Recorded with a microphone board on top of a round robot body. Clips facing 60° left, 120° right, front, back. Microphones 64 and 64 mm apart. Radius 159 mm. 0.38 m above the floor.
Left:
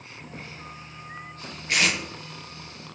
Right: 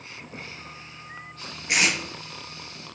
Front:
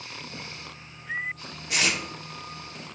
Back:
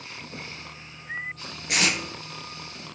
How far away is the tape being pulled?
About 4.5 m.